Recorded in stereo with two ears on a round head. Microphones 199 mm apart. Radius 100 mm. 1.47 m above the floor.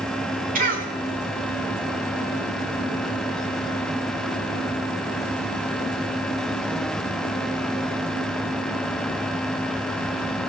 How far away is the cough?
About 4.5 m.